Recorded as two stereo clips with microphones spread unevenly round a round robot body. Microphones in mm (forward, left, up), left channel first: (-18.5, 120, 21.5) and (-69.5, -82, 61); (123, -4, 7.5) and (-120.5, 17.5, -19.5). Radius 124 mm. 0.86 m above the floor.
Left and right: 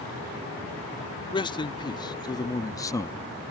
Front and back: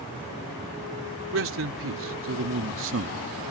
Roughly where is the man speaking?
Behind left.